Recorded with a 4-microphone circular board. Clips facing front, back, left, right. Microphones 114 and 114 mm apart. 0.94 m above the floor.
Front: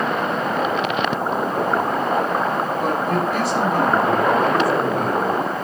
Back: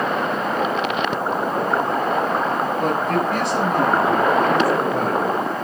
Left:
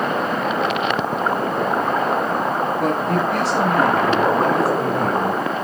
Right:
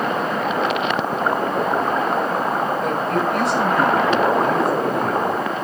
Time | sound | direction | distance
2.8 | a man speaking | 85° left | 7 m